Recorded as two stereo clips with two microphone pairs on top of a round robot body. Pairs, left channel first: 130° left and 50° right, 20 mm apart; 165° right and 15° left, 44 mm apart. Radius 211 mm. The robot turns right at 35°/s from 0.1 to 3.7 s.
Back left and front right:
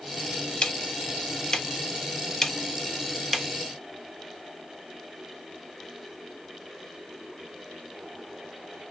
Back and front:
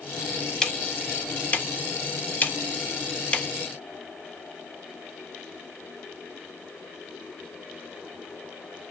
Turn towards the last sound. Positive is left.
turn(degrees=-110)